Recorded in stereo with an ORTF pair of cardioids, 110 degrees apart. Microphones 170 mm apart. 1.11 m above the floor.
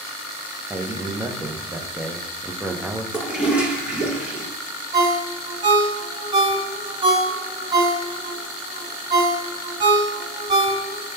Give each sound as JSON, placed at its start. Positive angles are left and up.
{"t": 0.7, "sound": "a man speaking", "azimuth_deg": -10, "distance_m": 0.5}
{"t": 3.1, "sound": "a toilet flushing", "azimuth_deg": -5, "distance_m": 0.8}
{"t": 4.9, "sound": "a ringtone", "azimuth_deg": -35, "distance_m": 1.7}